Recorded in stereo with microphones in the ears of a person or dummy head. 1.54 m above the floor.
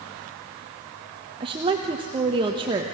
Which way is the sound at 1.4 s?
30° right (ahead or behind).